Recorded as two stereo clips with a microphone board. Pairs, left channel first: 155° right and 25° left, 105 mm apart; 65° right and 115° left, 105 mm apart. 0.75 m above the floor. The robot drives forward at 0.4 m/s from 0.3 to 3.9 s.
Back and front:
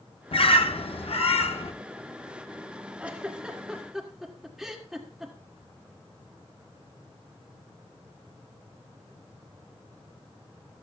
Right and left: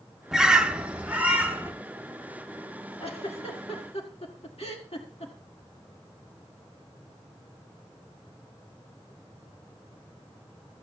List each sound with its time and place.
0.3 s a bird: 165° right, 0.5 m; by 1.7 s 170° right, 1.1 m
3.0 s a giggle: 55° right, 2.0 m; by 5.3 s 65° right, 1.8 m